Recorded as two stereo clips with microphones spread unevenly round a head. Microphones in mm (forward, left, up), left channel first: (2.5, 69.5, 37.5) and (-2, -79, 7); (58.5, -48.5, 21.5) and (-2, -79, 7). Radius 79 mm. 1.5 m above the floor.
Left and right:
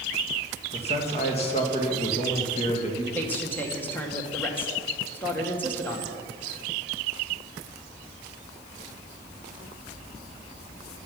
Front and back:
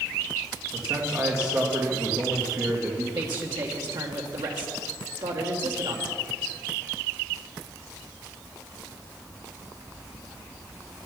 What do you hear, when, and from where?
0.7 s a man speaking: 140° left, 2.5 m
3.1 s a man speaking: 170° left, 1.7 m